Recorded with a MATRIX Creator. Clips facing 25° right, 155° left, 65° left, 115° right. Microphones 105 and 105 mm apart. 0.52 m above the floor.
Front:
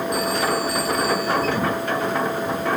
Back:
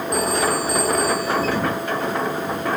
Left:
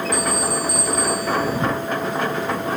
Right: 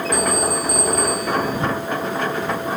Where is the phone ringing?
150° right.